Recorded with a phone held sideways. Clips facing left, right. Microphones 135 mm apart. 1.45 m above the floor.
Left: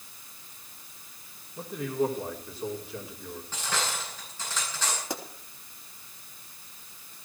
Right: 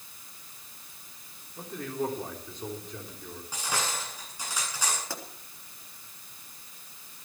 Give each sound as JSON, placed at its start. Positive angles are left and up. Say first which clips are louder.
{"t": 1.6, "sound": "a man speaking", "louder": "left 4 dB", "side_deg": 5, "distance_m": 3.5}
{"t": 3.5, "sound": "cutlery clinking", "louder": "even", "side_deg": -10, "distance_m": 9.5}
{"t": 5.1, "sound": "a pop", "louder": "left 4 dB", "side_deg": 20, "distance_m": 3.0}